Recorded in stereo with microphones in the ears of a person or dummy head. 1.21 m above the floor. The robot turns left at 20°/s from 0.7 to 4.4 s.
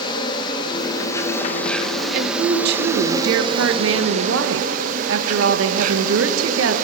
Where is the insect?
25° left, 1.1 m; by 6.9 s 45° right, 1.1 m.